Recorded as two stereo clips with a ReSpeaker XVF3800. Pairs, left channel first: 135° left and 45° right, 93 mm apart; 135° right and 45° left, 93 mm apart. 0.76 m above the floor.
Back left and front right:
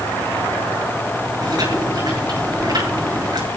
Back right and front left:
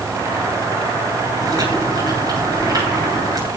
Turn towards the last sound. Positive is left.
turn(degrees=-5)